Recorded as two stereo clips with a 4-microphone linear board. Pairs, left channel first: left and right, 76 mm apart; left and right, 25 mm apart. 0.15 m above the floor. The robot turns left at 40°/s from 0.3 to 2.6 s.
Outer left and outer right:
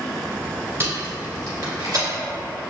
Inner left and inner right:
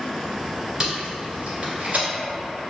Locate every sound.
0.8 s tape being pulled: 30° right (ahead or behind), 1.8 m; by 2.0 s 55° right (ahead or behind), 1.8 m